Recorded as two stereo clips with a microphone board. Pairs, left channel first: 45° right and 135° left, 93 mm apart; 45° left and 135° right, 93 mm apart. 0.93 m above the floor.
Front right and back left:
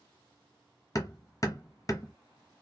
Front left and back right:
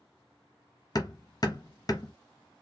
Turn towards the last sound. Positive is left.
turn(degrees=5)